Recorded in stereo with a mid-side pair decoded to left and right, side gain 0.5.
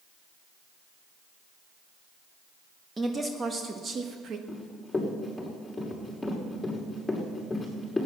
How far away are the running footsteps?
About 6 m.